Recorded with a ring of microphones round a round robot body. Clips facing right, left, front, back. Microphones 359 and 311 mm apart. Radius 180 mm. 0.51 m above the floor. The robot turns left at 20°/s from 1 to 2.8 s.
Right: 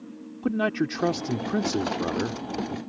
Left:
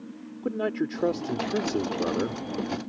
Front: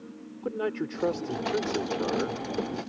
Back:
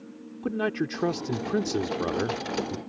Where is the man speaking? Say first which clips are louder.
Right 2 dB, back 2 dB; 135° right; by 2.8 s 170° right.